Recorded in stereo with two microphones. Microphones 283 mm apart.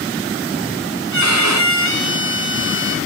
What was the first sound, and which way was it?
A violin, 75° right (ahead or behind).